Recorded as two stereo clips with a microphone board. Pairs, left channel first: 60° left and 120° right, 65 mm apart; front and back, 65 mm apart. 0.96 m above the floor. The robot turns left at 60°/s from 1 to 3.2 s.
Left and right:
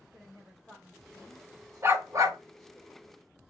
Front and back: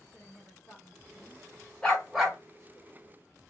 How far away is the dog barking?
About 1.5 m.